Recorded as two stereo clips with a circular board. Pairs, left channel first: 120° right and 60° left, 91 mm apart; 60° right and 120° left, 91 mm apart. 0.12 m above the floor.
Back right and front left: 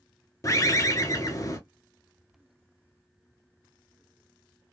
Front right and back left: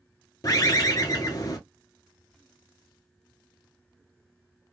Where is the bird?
85° right, 0.9 m.